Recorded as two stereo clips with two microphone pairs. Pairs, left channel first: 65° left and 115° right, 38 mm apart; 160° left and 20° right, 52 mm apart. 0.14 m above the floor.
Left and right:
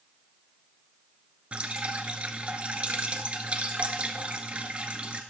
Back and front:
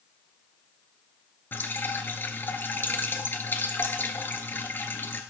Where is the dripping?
165° right, 1.2 m.